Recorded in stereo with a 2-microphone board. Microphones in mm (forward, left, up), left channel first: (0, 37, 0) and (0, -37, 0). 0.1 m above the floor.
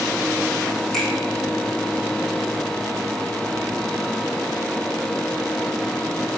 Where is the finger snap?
5° left (ahead or behind), 2.5 m.